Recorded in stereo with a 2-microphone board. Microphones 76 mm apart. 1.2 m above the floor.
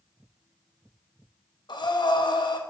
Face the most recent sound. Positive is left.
turn(degrees=75)  # may be behind; listen again after turning